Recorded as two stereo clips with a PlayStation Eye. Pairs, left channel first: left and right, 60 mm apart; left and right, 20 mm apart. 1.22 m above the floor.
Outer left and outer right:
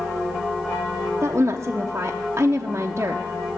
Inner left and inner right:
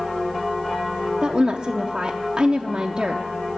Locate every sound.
1.2 s a woman speaking: 40° right (ahead or behind), 0.6 m